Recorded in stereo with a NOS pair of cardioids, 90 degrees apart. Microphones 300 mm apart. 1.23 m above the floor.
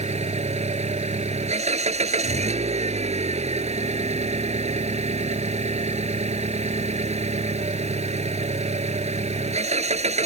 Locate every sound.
0.0 s an engine running: 20° right